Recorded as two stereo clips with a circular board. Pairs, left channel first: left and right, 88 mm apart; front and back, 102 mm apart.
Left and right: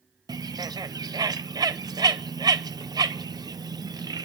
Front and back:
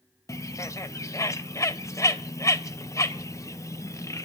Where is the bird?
55° right, 0.6 m.